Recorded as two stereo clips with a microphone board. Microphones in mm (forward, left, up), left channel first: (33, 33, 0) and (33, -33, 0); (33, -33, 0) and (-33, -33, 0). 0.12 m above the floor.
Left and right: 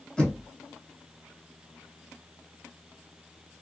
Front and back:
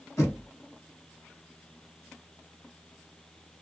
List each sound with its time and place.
0.2 s knocking: 20° left, 1.9 m